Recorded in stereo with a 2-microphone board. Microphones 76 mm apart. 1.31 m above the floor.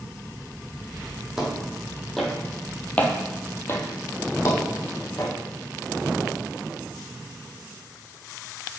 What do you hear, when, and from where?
1.4 s footsteps: 5° right (ahead or behind), 2 m; by 5.3 s 40° left (ahead or behind), 2.5 m